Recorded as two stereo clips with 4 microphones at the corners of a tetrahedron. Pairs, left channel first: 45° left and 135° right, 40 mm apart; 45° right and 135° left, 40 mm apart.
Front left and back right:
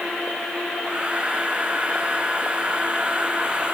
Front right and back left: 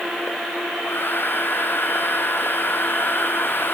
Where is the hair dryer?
70° right.